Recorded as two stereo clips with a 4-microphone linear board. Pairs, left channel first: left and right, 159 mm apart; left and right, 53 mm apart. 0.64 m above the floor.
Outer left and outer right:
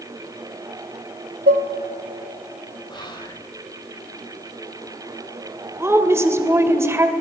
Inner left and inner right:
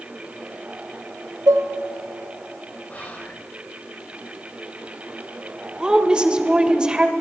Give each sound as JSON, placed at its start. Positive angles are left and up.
{"t": 1.5, "sound": "dishes clattering", "side_deg": -65, "distance_m": 1.0}
{"t": 2.9, "sound": "whispering", "side_deg": 25, "distance_m": 3.0}
{"t": 5.8, "sound": "a woman speaking", "side_deg": -15, "distance_m": 2.5}